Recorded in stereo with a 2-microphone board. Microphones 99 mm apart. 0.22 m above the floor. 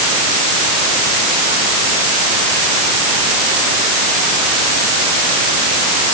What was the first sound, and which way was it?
Only background noise.